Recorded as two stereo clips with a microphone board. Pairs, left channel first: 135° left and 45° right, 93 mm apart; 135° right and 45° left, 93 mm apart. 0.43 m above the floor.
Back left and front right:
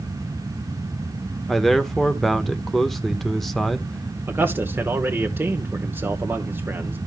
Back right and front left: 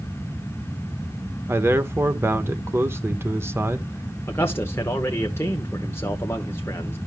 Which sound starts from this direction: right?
A man speaking, at 4.3 s.